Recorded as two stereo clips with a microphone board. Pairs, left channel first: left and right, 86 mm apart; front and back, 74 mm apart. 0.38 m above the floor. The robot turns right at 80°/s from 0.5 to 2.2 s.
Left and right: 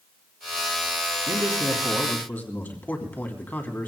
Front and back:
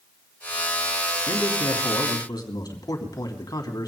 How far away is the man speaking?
About 3 m.